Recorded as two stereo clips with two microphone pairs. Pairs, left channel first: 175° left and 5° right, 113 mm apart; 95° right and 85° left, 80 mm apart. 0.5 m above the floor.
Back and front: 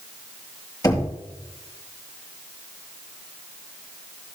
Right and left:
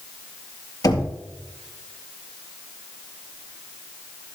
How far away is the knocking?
About 4 m.